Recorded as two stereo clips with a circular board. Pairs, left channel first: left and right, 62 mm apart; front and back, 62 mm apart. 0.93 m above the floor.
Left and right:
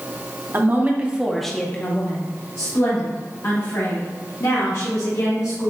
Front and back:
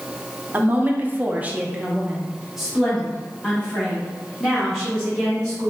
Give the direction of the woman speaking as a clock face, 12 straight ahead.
4 o'clock.